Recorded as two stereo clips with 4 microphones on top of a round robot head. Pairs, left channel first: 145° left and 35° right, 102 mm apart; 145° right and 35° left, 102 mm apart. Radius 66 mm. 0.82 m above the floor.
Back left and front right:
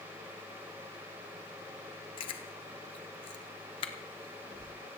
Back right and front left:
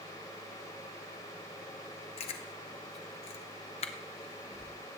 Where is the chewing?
175° right, 1.0 m.